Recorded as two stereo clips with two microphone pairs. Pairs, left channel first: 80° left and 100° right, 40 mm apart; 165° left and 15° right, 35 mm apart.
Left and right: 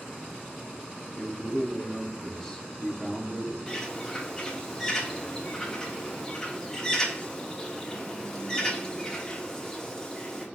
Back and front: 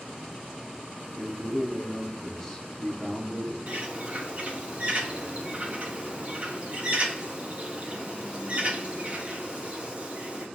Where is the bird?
10° left, 0.6 m.